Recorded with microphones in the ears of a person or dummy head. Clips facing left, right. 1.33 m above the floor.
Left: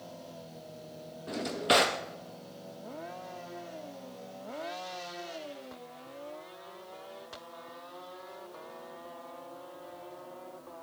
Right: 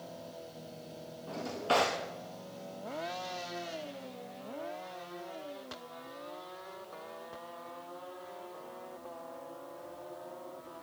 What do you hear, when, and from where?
1.3 s a drawer: 20° left (ahead or behind), 0.7 m